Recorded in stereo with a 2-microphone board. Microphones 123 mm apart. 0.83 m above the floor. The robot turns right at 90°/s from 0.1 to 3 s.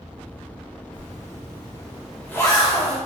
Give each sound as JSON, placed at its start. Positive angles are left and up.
{"t": 0.9, "sound": "a zipper", "side_deg": -60, "distance_m": 2.0}